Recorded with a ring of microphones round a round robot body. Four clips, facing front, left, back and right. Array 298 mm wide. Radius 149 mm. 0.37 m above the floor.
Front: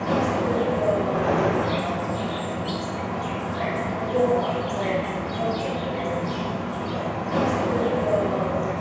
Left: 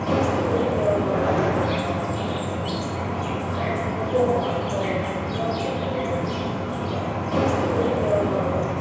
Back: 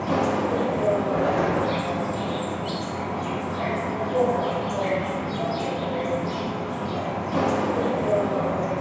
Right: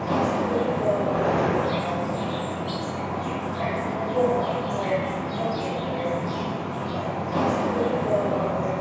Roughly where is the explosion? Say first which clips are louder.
Left 1 dB, even; ahead right.